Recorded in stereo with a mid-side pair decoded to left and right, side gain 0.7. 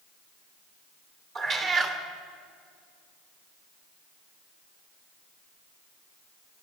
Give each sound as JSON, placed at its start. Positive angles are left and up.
{"t": 1.4, "sound": "a cat meowing", "azimuth_deg": -45, "distance_m": 2.5}